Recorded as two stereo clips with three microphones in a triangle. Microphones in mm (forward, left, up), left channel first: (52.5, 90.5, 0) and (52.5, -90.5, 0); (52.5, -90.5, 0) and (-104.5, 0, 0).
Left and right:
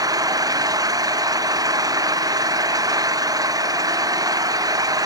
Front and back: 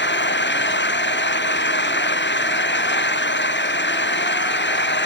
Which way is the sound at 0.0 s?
20° right.